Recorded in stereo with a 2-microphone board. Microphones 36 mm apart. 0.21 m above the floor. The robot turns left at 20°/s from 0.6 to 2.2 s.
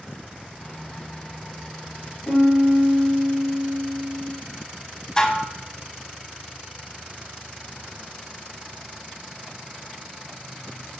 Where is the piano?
70° left (ahead or behind), 2.5 m.